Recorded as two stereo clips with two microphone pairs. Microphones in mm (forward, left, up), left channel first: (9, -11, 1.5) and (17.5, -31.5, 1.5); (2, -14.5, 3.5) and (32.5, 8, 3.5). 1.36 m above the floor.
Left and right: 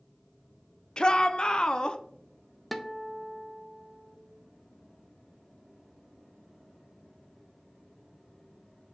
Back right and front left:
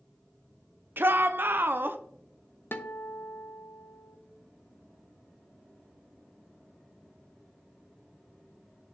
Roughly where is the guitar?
Behind right.